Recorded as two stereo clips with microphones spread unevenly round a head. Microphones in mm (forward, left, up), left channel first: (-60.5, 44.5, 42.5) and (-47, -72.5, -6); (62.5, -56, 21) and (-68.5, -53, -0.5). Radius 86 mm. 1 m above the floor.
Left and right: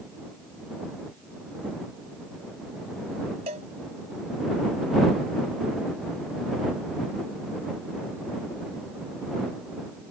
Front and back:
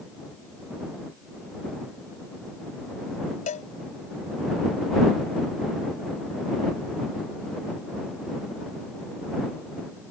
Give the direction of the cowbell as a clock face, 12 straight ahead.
1 o'clock.